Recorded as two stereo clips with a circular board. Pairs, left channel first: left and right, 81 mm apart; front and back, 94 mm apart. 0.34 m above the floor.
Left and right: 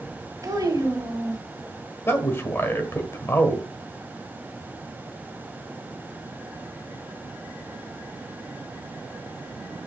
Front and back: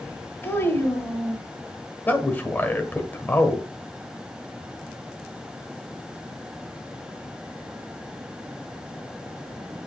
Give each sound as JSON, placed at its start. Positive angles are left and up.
{"t": 0.4, "sound": "a child speaking", "azimuth_deg": -60, "distance_m": 1.8}
{"t": 2.1, "sound": "a man speaking", "azimuth_deg": 55, "distance_m": 1.3}